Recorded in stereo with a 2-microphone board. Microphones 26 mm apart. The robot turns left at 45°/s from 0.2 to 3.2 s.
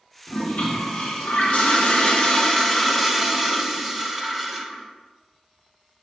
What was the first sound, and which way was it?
A toilet flushing, 120° left.